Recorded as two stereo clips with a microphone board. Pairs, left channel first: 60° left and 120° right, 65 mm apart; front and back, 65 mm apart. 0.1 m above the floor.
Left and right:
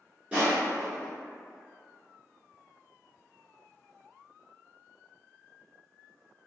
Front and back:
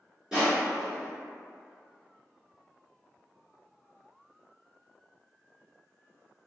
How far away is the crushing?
About 1.7 m.